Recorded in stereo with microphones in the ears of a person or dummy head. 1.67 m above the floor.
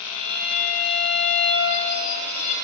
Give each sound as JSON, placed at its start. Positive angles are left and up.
{"t": 0.1, "sound": "a violin", "side_deg": 45, "distance_m": 8.0}